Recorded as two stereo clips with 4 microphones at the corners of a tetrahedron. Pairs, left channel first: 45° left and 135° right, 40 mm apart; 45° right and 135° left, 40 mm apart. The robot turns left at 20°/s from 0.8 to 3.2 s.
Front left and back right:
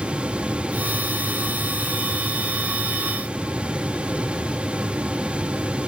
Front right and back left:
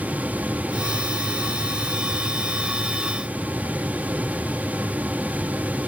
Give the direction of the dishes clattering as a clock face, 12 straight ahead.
I don't hear dishes clattering.